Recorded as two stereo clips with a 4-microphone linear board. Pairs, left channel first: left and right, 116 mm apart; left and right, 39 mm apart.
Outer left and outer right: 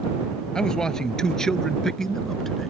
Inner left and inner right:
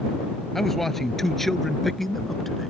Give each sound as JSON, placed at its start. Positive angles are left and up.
{"t": 0.6, "sound": "a man speaking", "side_deg": 5}